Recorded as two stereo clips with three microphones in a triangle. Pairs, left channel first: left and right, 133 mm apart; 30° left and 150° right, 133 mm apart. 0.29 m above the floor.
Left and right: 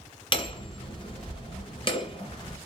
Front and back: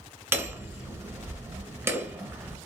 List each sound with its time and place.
0.3 s hammering: 140° left, 1.7 m